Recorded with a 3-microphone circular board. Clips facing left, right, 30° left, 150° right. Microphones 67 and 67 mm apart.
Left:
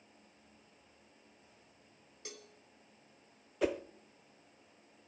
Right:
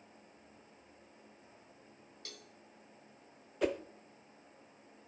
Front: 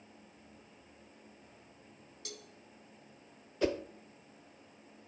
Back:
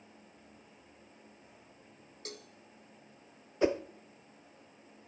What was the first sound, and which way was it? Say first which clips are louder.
A cowbell: left 4 dB, back 3 dB; 165° left.